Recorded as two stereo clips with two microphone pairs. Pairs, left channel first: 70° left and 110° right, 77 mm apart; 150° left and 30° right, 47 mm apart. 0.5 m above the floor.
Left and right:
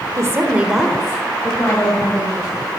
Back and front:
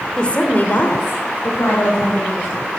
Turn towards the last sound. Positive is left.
turn(degrees=120)